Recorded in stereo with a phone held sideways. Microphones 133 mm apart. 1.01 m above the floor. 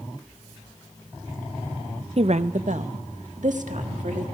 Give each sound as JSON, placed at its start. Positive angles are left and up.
{"t": 2.2, "sound": "a woman speaking", "side_deg": -50, "distance_m": 0.6}